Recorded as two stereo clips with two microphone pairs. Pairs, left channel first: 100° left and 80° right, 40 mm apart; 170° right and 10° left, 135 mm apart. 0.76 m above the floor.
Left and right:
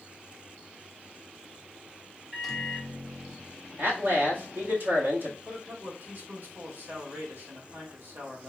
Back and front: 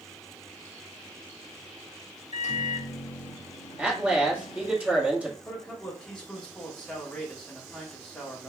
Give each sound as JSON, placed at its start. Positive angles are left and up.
{"t": 2.3, "sound": "a microwave", "azimuth_deg": -165, "distance_m": 1.0}
{"t": 3.8, "sound": "a man speaking", "azimuth_deg": -65, "distance_m": 1.7}
{"t": 5.5, "sound": "a man speaking", "azimuth_deg": -85, "distance_m": 2.0}